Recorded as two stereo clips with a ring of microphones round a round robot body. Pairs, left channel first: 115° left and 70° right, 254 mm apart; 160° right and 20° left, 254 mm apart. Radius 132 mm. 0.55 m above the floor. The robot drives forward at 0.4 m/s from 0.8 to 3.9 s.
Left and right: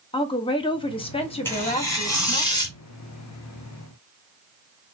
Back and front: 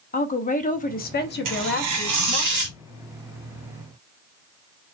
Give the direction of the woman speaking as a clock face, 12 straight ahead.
6 o'clock.